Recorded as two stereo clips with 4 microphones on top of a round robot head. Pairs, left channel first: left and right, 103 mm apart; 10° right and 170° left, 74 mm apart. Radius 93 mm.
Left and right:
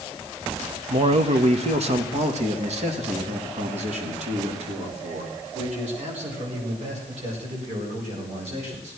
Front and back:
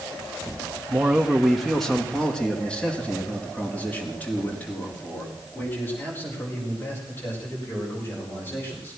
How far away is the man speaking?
About 0.9 m.